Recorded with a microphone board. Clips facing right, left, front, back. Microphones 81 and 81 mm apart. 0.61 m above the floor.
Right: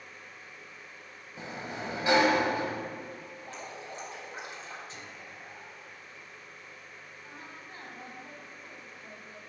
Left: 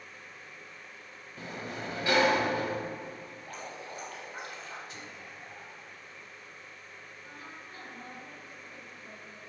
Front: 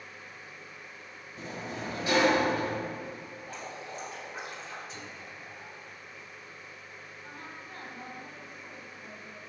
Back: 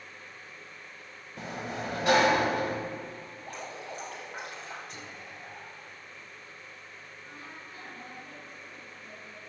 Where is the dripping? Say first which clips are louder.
Even, back 2 dB; 160° right, 4 m.